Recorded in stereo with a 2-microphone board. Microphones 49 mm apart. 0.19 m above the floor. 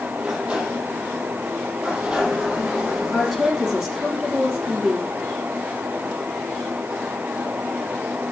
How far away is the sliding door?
About 4.5 m.